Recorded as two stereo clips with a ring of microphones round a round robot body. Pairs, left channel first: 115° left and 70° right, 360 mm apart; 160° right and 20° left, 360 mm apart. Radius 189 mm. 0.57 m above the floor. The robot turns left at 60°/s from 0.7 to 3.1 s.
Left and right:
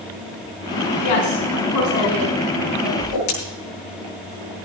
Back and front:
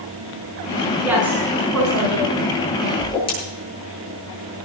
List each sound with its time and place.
1.0 s a woman speaking: 110° left, 5.5 m; by 2.9 s straight ahead, 5.5 m
3.0 s a whoosh: 135° left, 8.5 m; by 3.3 s 125° left, 8.5 m